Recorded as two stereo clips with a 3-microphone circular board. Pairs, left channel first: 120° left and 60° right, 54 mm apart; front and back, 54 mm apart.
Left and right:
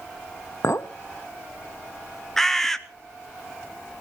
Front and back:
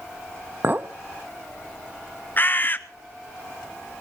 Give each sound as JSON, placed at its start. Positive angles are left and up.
{"t": 0.6, "sound": "a clink", "azimuth_deg": 130, "distance_m": 0.8}
{"t": 2.4, "sound": "a bird", "azimuth_deg": 40, "distance_m": 0.8}